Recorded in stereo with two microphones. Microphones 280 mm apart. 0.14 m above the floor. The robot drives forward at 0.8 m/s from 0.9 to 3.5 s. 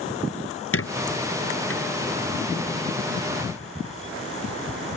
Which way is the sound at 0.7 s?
50° left (ahead or behind).